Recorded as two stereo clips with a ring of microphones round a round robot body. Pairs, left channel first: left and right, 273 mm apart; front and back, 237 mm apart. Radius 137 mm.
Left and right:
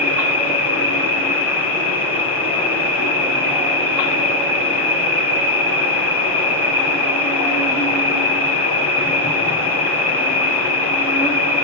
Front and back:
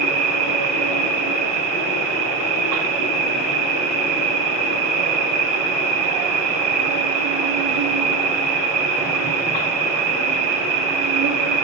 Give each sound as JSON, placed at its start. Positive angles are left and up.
{"t": 0.0, "sound": "an insect", "azimuth_deg": -170, "distance_m": 2.5}